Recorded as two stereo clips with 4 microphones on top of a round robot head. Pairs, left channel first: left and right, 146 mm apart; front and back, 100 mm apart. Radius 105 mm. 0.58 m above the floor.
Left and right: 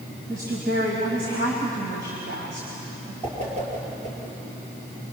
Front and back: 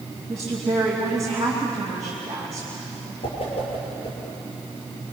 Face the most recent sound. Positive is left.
turn(degrees=-45)